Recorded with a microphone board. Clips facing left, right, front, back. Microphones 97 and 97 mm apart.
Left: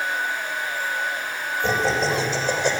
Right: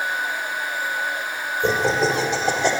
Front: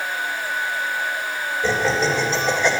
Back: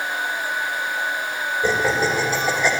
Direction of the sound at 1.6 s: 105° right.